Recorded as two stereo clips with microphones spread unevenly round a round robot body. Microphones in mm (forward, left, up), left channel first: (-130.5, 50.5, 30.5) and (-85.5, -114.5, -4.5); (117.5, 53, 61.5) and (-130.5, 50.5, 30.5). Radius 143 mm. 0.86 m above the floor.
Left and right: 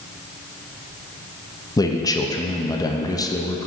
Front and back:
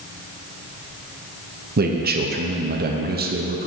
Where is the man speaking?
Straight behind, 0.9 m.